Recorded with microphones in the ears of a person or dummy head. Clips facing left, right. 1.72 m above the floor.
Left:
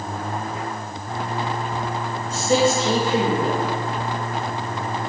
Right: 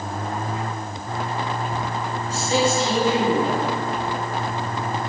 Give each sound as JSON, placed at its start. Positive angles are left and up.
{"t": 2.3, "sound": "a man speaking", "side_deg": 40, "distance_m": 2.5}